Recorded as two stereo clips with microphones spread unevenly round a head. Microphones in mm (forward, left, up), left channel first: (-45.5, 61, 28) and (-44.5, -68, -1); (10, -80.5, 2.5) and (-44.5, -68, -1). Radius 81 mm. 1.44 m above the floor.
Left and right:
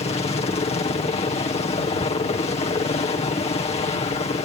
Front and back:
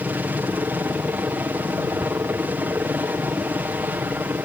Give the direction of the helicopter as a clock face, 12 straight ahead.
8 o'clock.